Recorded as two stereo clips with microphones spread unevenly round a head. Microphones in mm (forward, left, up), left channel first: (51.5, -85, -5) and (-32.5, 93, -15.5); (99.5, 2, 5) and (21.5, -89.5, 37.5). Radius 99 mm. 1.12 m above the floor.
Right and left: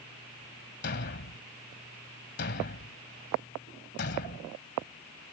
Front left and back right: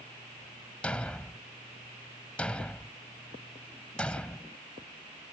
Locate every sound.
0.8 s a thud: 40° right